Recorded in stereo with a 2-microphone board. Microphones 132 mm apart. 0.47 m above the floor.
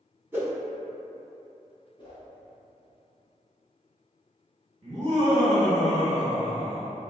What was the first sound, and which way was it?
A whoosh, 15° right (ahead or behind).